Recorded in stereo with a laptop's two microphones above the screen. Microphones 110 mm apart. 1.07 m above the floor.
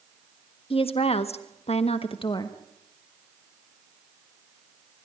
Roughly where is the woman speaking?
Left.